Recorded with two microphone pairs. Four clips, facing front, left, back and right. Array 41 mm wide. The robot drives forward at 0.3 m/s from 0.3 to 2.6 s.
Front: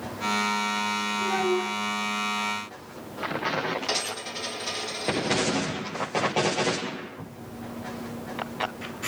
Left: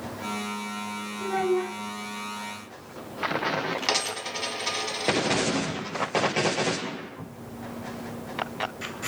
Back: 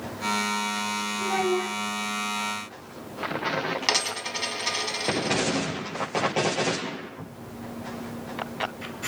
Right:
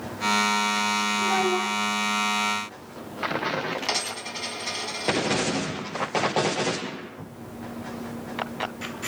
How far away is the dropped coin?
About 0.9 m.